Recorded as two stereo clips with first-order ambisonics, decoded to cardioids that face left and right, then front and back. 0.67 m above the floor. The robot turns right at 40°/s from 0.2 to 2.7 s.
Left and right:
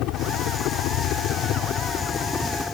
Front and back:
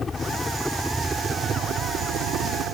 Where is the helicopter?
70° left; by 2.8 s 170° left.